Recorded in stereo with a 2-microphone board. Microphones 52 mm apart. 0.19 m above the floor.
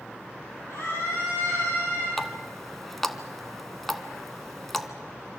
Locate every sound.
0.7 s a scream: 70° left (ahead or behind), 7.5 m
2.2 s a running tap: 5° left (ahead or behind), 1.1 m